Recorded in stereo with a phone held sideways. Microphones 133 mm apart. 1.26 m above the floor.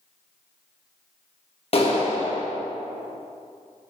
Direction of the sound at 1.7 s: 45° left (ahead or behind).